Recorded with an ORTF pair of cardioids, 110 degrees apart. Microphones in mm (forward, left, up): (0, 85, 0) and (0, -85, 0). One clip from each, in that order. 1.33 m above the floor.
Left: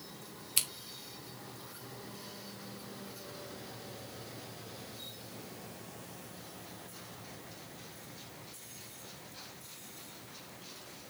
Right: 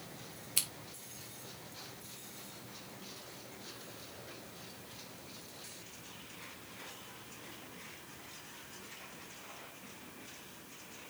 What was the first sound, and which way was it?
Scissors, 15° left.